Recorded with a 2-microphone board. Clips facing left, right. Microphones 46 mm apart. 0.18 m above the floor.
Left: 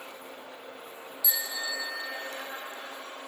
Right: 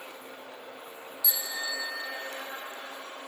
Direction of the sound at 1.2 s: 10° left (ahead or behind).